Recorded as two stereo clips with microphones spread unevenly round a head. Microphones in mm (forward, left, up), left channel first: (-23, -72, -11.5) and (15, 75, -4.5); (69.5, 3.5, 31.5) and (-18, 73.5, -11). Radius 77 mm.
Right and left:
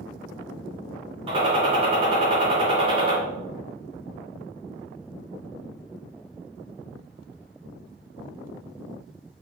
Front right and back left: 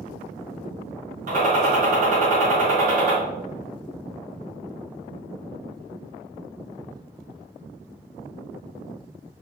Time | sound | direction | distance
1.3 | a gunshot | 125° left | 3.5 m